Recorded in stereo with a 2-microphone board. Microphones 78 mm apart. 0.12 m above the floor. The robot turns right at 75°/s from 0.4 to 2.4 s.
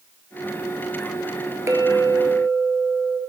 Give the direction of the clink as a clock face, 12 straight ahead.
4 o'clock.